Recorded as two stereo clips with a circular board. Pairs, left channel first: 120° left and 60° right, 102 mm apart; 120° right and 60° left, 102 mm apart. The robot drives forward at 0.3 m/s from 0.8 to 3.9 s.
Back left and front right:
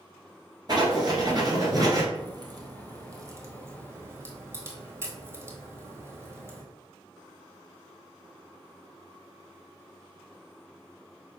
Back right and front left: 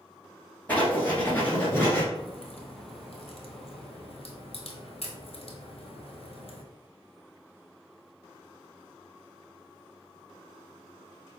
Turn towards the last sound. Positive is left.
turn(degrees=-120)